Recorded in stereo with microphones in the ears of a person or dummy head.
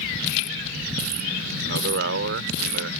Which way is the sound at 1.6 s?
65° right (ahead or behind).